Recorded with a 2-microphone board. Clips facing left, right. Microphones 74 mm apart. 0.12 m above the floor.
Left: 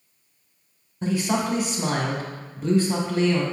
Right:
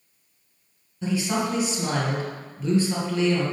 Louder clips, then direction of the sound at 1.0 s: Left 1 dB; 40° left (ahead or behind).